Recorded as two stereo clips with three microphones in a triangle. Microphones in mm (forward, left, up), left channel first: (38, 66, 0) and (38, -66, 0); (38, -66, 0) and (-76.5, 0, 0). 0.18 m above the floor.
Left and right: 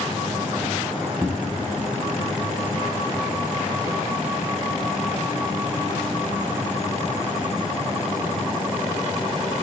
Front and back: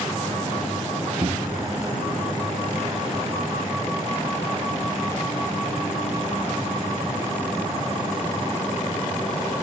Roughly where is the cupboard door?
Behind.